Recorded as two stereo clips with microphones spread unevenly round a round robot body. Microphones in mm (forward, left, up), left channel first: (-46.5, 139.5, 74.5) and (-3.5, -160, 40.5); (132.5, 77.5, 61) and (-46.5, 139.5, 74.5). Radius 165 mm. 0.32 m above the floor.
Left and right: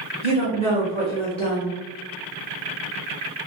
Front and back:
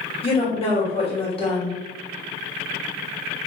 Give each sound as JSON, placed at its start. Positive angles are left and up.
{"t": 0.2, "sound": "a woman speaking", "azimuth_deg": 25, "distance_m": 2.0}